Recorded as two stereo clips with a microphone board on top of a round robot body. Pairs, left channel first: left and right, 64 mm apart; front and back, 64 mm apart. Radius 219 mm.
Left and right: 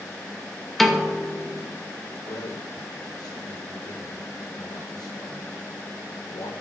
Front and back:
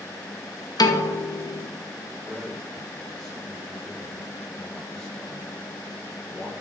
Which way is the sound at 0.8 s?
Straight ahead.